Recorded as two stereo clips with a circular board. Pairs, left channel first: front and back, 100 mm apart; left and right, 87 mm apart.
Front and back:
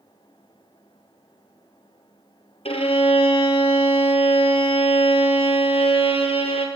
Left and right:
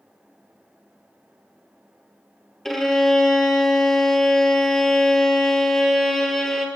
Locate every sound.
2.6 s a violin: 5° left, 1.0 m